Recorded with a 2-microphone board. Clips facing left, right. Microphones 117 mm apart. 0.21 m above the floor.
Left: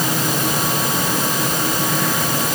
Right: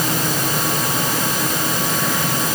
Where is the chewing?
I don't hear chewing.